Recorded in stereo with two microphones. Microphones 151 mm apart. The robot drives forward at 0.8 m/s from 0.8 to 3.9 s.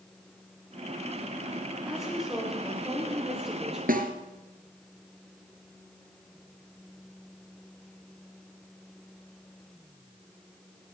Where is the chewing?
No chewing in this recording.